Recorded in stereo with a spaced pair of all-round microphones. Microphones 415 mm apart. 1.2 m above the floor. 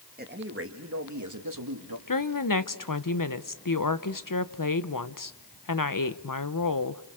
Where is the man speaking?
20° right (ahead or behind), 2 m; by 2.0 s 60° right (ahead or behind), 2.5 m.